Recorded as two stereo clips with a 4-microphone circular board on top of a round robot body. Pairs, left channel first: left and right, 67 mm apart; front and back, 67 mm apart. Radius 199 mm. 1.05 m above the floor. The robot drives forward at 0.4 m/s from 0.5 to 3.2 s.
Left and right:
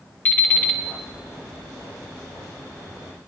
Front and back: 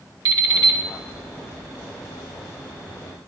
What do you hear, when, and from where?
0.2 s an alarm clock: 155° left, 1.3 m; by 0.8 s 160° left, 1.4 m